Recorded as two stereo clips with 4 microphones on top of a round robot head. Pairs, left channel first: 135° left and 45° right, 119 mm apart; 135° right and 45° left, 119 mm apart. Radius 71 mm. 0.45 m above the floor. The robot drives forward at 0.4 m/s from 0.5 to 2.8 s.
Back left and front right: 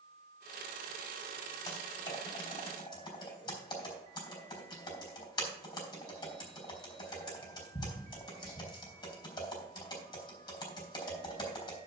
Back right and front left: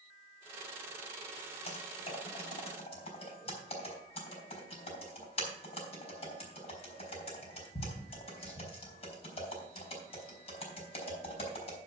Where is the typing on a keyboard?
170° right, 4 m.